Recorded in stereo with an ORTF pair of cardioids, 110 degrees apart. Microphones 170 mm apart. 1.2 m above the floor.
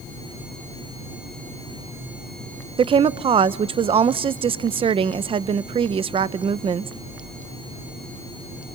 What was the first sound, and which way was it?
A woman speaking, 35° right.